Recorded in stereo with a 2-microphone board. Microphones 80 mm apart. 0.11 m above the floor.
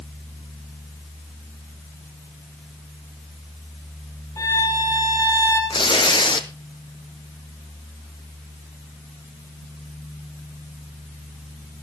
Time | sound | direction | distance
4.4 | a violin | 40° left (ahead or behind) | 6 m
5.7 | tearing paper | 75° left (ahead or behind) | 1.0 m